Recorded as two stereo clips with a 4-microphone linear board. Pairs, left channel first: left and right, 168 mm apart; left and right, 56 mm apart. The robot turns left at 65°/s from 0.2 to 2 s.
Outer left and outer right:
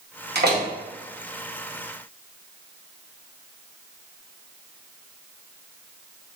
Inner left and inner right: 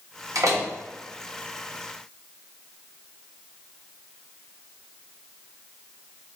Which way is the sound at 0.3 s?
80° right.